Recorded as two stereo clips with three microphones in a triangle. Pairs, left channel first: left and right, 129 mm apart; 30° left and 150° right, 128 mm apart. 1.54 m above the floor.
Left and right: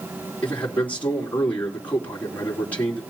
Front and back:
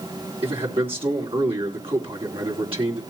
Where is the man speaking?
170° left, 3.5 m.